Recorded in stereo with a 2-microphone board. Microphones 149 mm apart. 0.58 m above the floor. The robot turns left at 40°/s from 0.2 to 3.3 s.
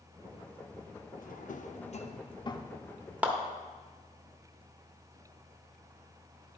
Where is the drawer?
65° left (ahead or behind), 0.5 m; by 2.8 s 20° left (ahead or behind), 0.5 m.